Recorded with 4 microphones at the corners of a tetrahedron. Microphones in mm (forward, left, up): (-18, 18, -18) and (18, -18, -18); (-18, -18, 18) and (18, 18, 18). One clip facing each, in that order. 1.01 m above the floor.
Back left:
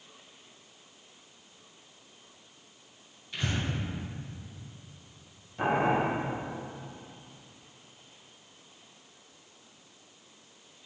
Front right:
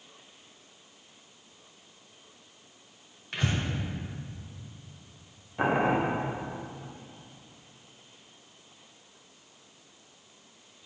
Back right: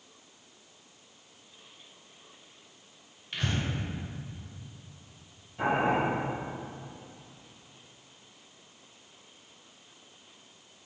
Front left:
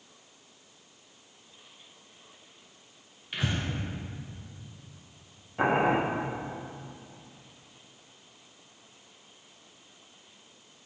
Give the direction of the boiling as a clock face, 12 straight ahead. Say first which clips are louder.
Front right 1 dB, front left 2 dB; 12 o'clock.